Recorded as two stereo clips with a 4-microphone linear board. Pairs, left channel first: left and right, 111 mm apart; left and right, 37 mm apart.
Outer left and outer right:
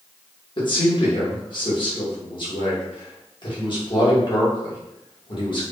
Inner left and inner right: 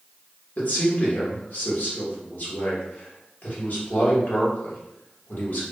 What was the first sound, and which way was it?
A man speaking, 50° left (ahead or behind).